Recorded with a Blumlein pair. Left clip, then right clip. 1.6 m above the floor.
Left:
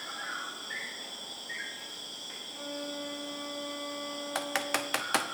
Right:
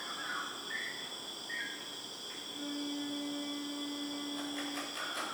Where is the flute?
65° left, 7.5 m.